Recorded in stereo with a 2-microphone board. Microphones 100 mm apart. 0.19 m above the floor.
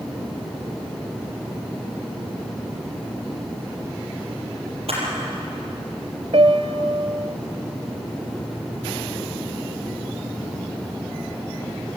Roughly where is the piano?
Right.